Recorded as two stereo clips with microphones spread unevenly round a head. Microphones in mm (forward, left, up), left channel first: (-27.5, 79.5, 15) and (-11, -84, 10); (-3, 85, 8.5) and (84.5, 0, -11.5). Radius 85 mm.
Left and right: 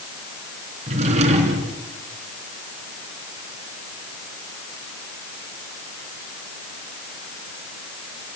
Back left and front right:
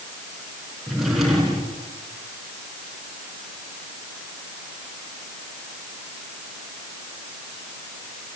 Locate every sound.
0.9 s a drawer: 135° right, 4 m